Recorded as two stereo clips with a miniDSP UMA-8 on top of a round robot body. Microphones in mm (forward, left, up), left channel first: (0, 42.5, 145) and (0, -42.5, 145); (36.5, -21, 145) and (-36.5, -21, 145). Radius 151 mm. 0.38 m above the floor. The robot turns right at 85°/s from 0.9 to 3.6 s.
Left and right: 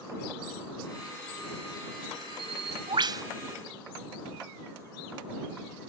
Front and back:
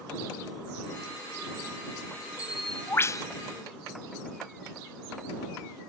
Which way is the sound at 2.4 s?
110° right.